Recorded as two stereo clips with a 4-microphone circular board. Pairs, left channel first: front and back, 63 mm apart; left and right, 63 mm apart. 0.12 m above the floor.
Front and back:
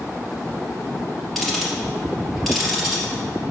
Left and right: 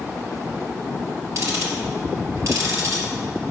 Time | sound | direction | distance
1.4 | ticking | 90° right | 3 m